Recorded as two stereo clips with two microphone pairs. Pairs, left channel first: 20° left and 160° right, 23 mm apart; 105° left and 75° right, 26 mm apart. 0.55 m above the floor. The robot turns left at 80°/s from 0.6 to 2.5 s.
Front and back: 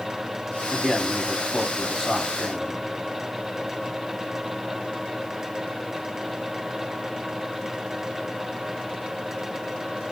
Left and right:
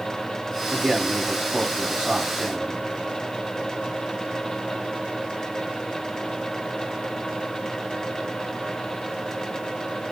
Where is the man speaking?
30° left, 1.5 m; by 2.8 s 110° right, 1.5 m.